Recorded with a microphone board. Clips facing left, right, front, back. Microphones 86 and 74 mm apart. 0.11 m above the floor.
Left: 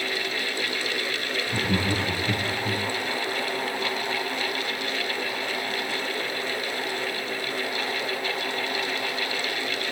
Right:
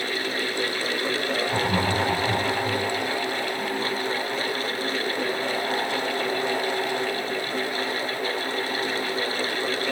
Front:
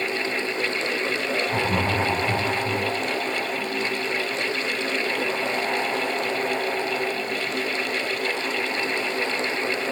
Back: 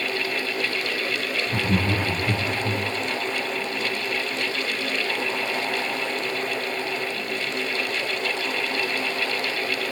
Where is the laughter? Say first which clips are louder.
Even, back 1 dB; 145° left, 5.5 m; by 2.8 s 155° left, 5.5 m.